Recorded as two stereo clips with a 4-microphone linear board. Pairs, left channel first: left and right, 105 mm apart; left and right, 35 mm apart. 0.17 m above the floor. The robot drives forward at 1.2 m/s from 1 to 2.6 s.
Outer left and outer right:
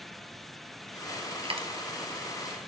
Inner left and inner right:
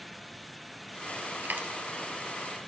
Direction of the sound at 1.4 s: 60° right (ahead or behind).